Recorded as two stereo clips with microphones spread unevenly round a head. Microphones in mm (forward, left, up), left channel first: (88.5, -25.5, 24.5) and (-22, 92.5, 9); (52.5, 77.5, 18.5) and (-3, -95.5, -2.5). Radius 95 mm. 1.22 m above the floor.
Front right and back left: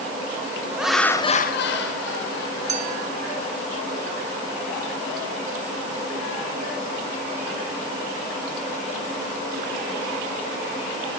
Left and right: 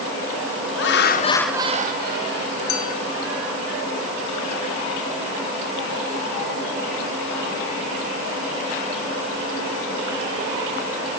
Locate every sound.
0.8 s laughter: 50° left, 1.2 m; by 3.7 s 95° right, 3.5 m
2.7 s a clink: 85° left, 0.8 m